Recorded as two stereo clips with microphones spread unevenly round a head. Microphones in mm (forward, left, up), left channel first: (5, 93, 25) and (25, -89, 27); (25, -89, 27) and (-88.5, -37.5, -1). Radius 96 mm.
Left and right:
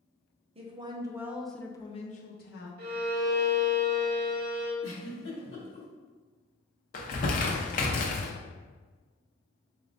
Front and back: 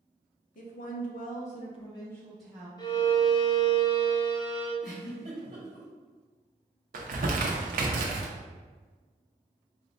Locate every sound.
0.6 s a woman speaking: 25° right, 0.9 m; by 2.7 s 85° left, 0.8 m
2.8 s a violin: 60° right, 0.9 m
4.8 s a giggle: 90° left, 1.3 m
6.9 s crumpling: 140° left, 0.6 m